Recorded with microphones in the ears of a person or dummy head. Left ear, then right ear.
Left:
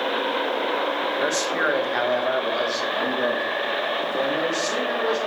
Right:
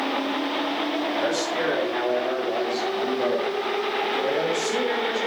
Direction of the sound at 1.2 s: 40° left (ahead or behind).